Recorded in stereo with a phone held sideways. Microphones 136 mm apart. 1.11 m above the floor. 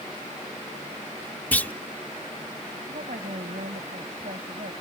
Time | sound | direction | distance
1.5 | a clunk | 10° left (ahead or behind) | ?
2.9 | a woman speaking | 85° right | ?